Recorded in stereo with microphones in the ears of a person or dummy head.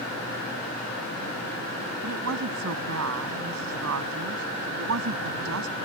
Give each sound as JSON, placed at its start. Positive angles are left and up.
{"t": 2.0, "sound": "a woman speaking", "side_deg": -85}